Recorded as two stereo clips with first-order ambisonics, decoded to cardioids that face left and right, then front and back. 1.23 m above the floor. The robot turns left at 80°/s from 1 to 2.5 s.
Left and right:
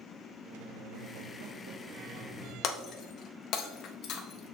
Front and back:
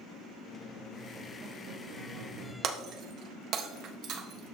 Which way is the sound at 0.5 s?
80° right.